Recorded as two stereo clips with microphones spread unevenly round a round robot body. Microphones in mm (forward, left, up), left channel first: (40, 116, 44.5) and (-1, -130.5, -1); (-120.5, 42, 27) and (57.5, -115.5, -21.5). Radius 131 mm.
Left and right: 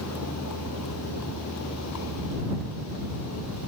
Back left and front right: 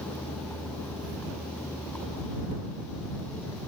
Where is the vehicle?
55° left.